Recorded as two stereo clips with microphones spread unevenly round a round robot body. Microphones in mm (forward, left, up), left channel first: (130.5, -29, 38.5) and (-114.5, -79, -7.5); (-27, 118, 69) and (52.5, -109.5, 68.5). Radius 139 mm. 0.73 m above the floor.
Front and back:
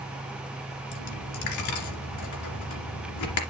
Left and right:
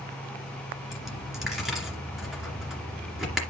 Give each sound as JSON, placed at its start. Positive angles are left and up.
{"t": 0.9, "sound": "a dropped coin", "azimuth_deg": 20, "distance_m": 2.5}